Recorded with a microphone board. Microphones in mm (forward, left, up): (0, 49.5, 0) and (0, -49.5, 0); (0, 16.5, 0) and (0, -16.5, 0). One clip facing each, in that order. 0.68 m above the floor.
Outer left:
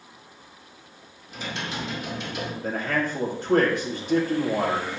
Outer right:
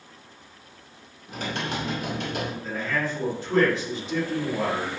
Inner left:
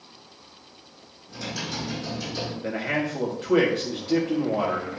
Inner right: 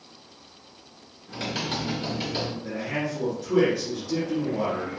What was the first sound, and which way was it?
Typing on a keyboard, 65° right (ahead or behind).